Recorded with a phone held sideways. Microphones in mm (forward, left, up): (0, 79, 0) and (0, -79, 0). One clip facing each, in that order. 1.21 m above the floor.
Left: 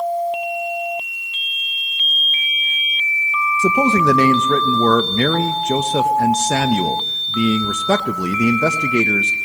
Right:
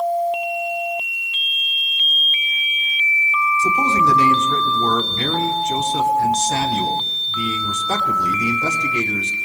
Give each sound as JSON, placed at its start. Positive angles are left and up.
{"t": 3.6, "sound": "a man speaking", "side_deg": 70, "distance_m": 1.4}